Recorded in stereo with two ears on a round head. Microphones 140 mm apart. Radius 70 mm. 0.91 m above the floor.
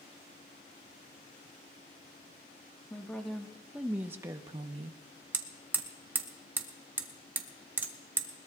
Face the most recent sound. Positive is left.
turn(degrees=-10)  # may be behind; listen again after turning